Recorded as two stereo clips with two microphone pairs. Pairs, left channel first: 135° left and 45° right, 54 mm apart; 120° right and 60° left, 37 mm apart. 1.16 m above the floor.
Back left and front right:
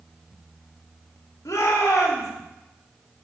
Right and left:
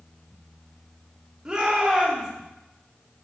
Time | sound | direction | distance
1.4 | a shout | 130° left | 2.5 m